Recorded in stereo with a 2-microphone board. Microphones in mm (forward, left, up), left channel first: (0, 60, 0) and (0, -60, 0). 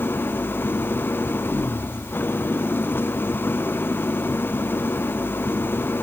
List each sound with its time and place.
0.0 s an engine running: 15° left (ahead or behind)